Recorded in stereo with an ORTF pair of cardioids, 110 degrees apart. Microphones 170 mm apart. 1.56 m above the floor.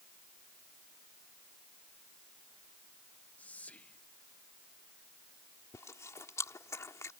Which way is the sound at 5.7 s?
20° left.